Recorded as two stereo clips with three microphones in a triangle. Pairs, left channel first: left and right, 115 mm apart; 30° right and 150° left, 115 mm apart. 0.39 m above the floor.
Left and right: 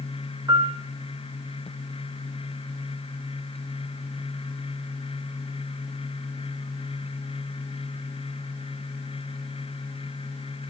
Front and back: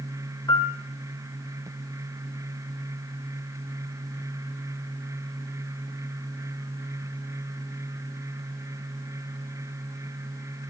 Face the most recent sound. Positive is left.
turn(degrees=-60)